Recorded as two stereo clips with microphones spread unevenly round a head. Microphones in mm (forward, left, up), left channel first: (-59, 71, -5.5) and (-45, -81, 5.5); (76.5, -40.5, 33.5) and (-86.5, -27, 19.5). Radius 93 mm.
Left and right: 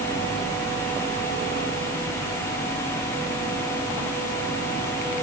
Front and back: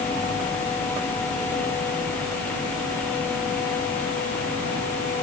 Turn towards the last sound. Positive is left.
No sound to turn to.